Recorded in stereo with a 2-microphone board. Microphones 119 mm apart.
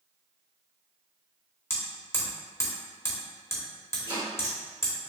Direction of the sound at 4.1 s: 45° right (ahead or behind).